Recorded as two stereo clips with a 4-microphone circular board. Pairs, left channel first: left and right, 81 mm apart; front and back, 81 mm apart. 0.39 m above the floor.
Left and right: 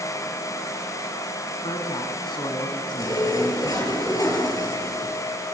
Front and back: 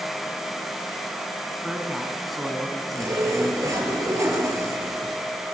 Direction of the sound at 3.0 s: 130° left.